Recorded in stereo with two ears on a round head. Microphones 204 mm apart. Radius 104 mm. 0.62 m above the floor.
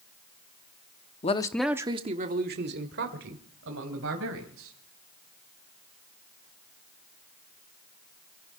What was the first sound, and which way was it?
A man speaking, 30° left (ahead or behind).